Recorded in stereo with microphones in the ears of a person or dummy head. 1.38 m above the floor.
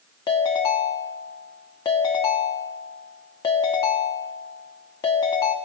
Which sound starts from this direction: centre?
A ringtone, at 0.3 s.